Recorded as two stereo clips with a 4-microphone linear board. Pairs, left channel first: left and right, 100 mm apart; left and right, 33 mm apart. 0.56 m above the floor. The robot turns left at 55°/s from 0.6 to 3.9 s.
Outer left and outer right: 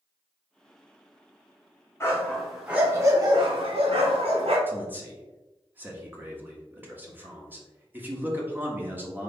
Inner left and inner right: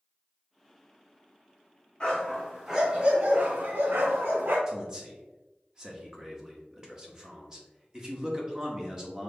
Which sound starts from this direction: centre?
A man speaking, at 4.7 s.